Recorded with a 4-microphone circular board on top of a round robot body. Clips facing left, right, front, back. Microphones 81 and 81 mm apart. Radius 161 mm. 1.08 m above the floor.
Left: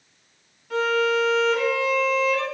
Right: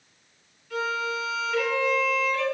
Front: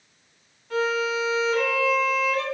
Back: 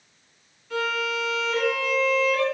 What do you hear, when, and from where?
0.7 s a violin: 50° left, 3.5 m